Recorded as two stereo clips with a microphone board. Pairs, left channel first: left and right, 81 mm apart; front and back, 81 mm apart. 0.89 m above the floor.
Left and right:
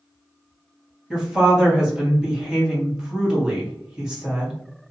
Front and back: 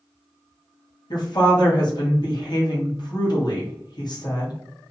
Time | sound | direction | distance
1.1 | a woman speaking | 10° right | 1.2 m